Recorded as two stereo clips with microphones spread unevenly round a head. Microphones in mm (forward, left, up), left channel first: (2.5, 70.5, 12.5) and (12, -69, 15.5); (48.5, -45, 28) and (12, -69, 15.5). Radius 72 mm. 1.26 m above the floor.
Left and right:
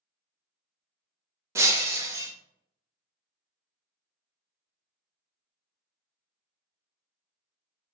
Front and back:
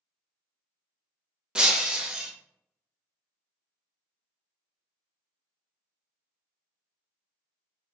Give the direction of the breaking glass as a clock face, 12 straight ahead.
2 o'clock.